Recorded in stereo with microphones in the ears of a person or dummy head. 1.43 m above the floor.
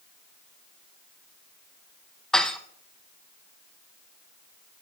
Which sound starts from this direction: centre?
Dishes clattering, at 2.3 s.